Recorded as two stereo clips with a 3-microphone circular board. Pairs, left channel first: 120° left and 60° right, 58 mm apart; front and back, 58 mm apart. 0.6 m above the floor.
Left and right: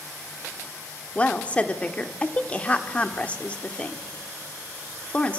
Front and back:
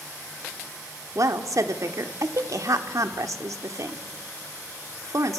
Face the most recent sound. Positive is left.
turn(degrees=-175)